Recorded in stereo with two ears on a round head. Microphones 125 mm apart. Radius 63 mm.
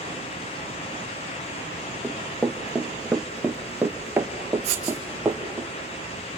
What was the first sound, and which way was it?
Running footsteps, 5° left (ahead or behind).